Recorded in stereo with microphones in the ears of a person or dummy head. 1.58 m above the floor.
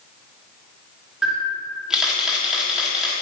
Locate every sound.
1.2 s a camera shutter: 5° left (ahead or behind), 1.9 m